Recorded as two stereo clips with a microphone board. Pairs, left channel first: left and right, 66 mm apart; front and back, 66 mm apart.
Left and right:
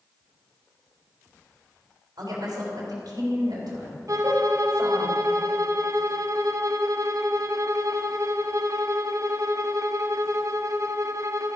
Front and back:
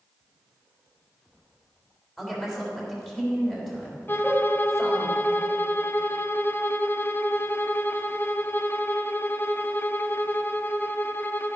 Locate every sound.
2.2 s a woman speaking: 85° right, 3.5 m
4.1 s a violin: 55° right, 0.6 m